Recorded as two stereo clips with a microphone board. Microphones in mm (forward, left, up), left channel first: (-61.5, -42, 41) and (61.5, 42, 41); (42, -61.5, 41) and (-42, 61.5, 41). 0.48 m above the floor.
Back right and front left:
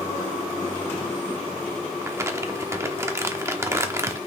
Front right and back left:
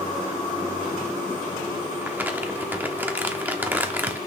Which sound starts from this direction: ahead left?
Crumpling, at 2.0 s.